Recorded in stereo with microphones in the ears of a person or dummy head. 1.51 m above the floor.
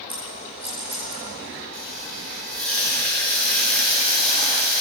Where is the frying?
10° left (ahead or behind), 3.5 m.